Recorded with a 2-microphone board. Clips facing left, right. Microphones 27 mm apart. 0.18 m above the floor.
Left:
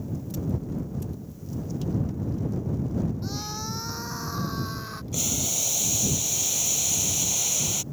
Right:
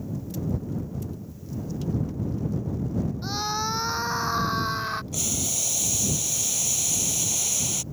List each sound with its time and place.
3.2 s a scream: 35° right (ahead or behind)
5.1 s boiling: 5° left (ahead or behind)